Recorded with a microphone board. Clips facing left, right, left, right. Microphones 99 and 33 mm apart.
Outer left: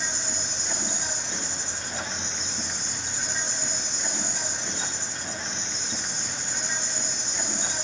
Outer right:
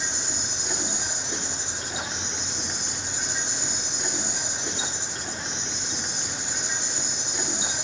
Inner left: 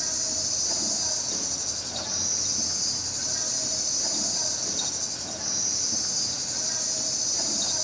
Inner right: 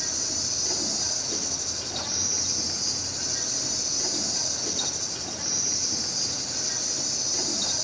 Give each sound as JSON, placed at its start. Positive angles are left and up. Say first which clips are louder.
{"t": 0.0, "sound": "an insect", "louder": "even, inner right 1 dB", "side_deg": -15, "distance_m": 2.5}